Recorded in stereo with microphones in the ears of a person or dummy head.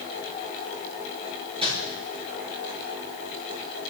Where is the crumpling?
25° right (ahead or behind), 10 m.